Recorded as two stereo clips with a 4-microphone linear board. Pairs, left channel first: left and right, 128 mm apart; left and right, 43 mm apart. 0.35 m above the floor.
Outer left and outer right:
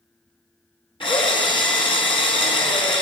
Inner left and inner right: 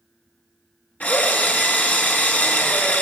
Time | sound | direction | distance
1.0 | a drill | 40° left (ahead or behind) | 3 m